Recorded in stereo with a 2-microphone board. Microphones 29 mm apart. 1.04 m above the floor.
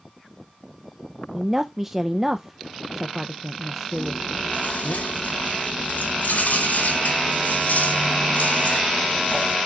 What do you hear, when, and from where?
1.3 s a woman speaking: 10° right (ahead or behind), 0.5 m
3.9 s chewing: 75° left (ahead or behind), 5 m